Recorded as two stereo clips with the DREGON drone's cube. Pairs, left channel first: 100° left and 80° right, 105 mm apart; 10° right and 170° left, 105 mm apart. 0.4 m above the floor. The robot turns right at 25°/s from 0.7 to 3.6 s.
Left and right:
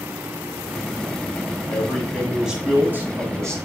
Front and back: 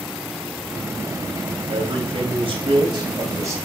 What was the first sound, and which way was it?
A man speaking, straight behind.